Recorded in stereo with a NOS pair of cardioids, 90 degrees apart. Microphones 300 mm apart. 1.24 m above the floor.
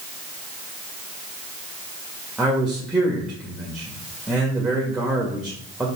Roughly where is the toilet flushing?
No toilet flushing in this recording.